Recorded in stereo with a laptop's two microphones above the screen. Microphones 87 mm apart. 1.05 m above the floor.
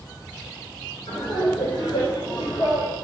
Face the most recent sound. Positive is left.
turn(degrees=80)